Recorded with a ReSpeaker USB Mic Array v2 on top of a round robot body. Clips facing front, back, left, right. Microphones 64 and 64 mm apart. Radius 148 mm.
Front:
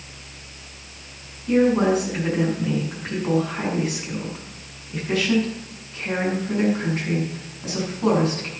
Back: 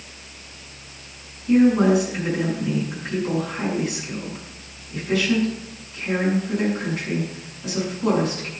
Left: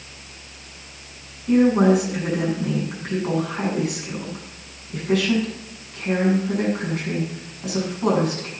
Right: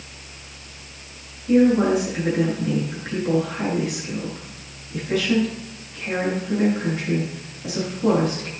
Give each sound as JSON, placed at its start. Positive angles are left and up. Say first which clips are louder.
{"t": 1.5, "sound": "a woman speaking", "louder": "back 2 dB, even", "azimuth_deg": 60, "distance_m": 7.0}